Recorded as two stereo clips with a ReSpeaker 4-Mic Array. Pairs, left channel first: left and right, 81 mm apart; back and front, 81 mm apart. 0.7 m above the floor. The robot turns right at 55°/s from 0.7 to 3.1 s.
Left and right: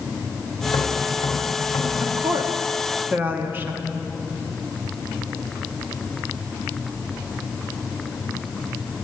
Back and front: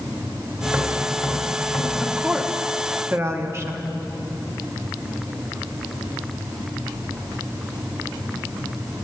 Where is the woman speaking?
100° right, 1.2 m; by 3.8 s 35° right, 1.2 m.